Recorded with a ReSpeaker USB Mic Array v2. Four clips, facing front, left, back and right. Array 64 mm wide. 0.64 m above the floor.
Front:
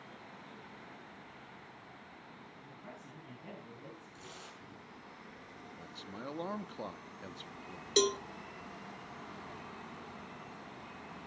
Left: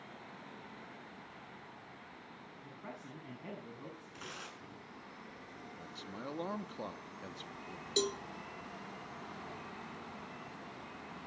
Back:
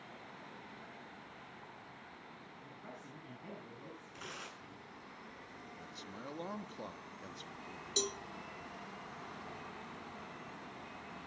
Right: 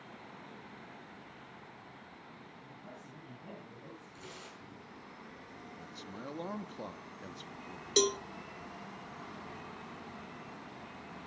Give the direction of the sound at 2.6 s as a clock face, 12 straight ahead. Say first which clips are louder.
Left 5 dB, even; 9 o'clock.